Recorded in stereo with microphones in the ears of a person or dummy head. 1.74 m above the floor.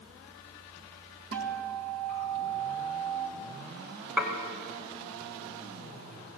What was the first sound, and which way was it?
A guitar, 65° right (ahead or behind).